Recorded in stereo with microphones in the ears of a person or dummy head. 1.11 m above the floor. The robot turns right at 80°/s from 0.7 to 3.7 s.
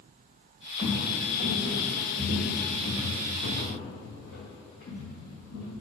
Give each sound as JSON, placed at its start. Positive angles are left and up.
{"t": 0.8, "sound": "footsteps", "side_deg": 5, "distance_m": 1.6}